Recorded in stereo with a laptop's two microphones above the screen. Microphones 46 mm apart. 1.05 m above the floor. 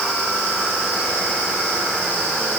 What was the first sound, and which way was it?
Only background noise.